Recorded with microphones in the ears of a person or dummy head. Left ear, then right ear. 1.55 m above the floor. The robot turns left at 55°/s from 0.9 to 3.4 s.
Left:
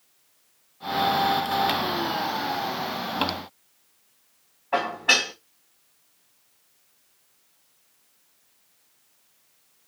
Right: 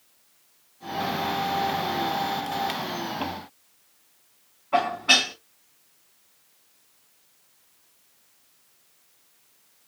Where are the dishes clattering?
30° left (ahead or behind), 1.8 m.